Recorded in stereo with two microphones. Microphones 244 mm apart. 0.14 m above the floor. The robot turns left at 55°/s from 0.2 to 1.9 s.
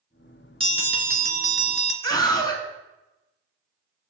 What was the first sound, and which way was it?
A bell, 30° right.